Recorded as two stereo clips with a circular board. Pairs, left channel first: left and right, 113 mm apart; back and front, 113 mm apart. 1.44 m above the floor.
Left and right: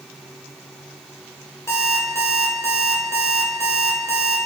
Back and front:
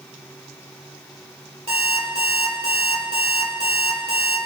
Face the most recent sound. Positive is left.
turn(degrees=25)